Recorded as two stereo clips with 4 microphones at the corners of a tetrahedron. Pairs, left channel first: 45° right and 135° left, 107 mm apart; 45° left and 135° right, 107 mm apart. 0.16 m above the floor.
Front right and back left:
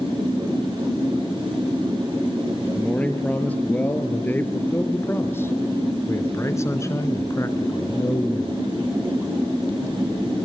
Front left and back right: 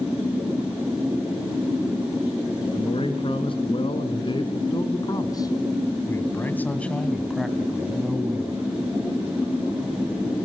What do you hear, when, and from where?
2.7 s a man speaking: 30° left, 3.5 m; by 8.6 s 85° right, 2.0 m